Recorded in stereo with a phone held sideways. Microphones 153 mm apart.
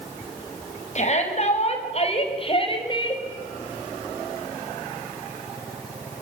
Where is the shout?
50° left (ahead or behind), 5.5 m; by 3.2 s 30° left (ahead or behind), 4 m.